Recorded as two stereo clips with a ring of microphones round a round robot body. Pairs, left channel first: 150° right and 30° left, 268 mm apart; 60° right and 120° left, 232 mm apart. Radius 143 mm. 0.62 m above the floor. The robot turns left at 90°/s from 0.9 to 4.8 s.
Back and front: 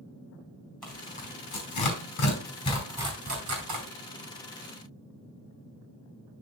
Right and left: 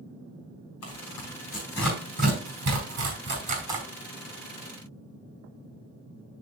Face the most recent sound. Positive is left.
turn(degrees=-55)